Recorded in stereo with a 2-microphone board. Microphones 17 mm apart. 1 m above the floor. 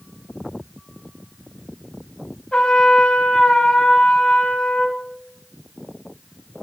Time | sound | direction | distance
2.5 | a trumpet | 65° left (ahead or behind) | 2.5 m